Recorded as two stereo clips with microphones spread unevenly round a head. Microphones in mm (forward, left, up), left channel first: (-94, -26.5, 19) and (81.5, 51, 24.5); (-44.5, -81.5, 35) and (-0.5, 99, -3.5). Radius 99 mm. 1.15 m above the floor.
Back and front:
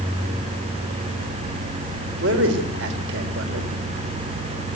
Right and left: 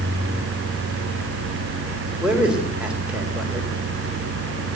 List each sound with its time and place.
2.2 s a man speaking: 10° right, 3.5 m